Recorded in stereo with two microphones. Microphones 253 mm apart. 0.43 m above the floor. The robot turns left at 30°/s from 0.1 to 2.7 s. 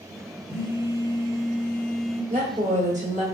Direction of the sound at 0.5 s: 20° left (ahead or behind).